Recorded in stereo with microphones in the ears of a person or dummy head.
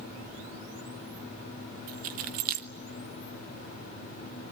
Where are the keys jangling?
40° right (ahead or behind), 0.7 m.